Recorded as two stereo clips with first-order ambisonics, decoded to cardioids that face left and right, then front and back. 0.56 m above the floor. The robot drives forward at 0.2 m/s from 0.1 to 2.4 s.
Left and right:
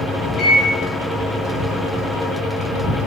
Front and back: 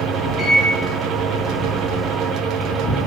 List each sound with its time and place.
0.4 s a microwave: 130° left, 0.7 m; by 0.7 s 135° left, 0.7 m